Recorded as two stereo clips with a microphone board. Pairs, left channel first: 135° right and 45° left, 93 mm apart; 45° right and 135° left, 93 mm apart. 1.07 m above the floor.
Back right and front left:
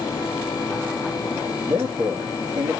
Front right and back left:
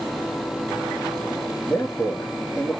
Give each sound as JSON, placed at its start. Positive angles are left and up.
{"t": 1.7, "sound": "a man speaking", "azimuth_deg": 30, "distance_m": 2.0}